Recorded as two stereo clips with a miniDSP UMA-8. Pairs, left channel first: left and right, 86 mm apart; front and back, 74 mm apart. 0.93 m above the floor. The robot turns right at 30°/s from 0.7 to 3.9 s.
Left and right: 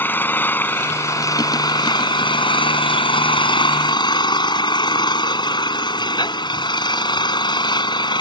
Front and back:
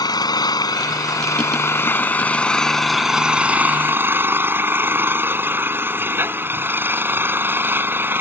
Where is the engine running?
25° left; by 8.2 s 120° left.